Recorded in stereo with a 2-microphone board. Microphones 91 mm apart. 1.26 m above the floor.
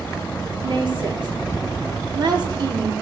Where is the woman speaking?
55° right (ahead or behind), 3.5 m.